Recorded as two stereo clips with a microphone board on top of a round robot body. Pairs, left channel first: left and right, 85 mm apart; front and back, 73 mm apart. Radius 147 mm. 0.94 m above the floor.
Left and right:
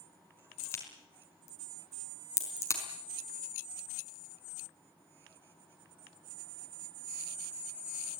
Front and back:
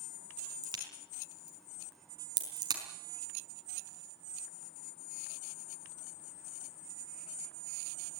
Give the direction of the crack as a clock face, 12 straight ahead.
7 o'clock.